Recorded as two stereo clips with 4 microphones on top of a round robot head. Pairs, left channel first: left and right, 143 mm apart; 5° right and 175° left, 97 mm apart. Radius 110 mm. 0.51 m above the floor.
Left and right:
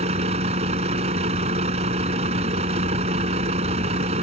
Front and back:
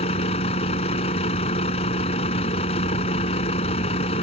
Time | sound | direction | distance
0.0 | a vehicle | 35° right | ?